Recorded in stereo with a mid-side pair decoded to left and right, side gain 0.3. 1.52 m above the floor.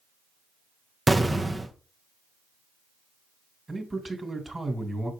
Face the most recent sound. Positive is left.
turn(degrees=-25)